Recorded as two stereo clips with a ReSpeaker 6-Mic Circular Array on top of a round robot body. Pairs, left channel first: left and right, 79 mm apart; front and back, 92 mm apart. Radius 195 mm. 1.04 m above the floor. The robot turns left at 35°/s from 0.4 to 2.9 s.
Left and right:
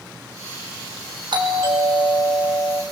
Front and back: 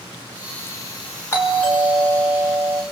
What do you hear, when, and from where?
1.3 s a doorbell: 65° right, 5.5 m; by 2.8 s 115° right, 5.5 m